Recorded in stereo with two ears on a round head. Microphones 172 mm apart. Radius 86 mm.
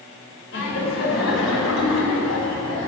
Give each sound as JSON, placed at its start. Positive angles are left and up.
{"t": 0.5, "sound": "laughter", "side_deg": 70, "distance_m": 4.0}